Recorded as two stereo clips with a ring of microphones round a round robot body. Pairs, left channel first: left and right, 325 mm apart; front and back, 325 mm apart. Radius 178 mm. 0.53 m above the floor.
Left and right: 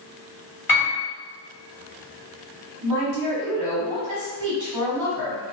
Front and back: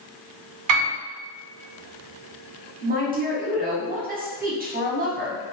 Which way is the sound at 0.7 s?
175° right.